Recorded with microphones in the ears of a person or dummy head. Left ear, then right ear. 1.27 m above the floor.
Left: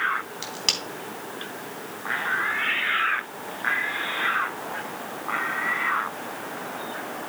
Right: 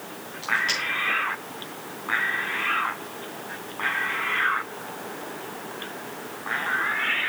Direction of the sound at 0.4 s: 60° left (ahead or behind).